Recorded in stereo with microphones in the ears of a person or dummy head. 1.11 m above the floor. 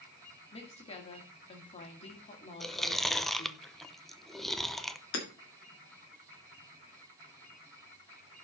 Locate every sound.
0.5 s a woman speaking: 30° left (ahead or behind), 1.9 m
2.6 s chewing: 5° left (ahead or behind), 0.7 m
5.1 s hammering: 65° left (ahead or behind), 1.6 m